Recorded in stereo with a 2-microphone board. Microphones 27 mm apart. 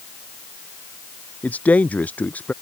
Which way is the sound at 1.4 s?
85° left.